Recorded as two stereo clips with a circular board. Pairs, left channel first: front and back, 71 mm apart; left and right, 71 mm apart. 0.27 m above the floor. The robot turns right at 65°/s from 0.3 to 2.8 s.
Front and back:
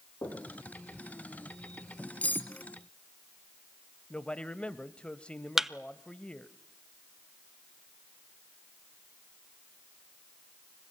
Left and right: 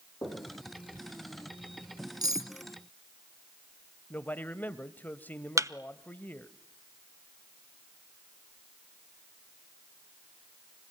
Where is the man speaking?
55° left, 1.0 m.